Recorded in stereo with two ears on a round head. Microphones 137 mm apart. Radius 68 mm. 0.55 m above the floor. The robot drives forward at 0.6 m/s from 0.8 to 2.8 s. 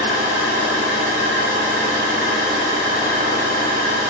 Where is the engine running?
70° right (ahead or behind), 3 m; by 4.1 s 75° right (ahead or behind), 2.5 m.